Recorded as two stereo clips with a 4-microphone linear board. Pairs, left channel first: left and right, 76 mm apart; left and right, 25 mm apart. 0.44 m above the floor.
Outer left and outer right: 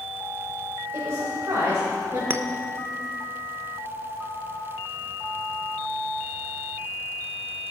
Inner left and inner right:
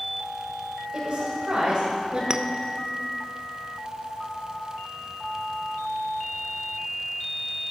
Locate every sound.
0.9 s a woman speaking: 35° right (ahead or behind), 2.5 m
2.3 s a clink: 30° right (ahead or behind), 0.5 m